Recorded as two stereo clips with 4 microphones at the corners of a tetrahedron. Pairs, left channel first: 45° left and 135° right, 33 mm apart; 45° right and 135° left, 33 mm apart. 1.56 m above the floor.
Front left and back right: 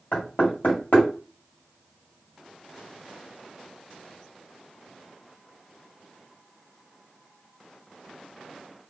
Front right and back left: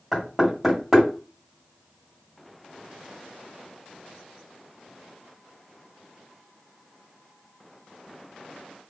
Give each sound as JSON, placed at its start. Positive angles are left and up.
{"t": 0.1, "sound": "knocking", "azimuth_deg": 55, "distance_m": 1.9}